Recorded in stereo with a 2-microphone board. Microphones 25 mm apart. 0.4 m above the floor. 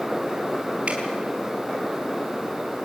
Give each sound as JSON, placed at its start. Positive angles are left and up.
{"t": 0.9, "sound": "dripping", "side_deg": -50, "distance_m": 4.5}